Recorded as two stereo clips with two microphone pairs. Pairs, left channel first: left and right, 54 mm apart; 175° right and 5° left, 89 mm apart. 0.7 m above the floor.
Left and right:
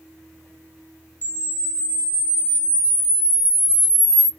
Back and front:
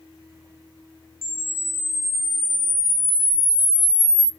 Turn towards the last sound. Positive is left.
turn(degrees=140)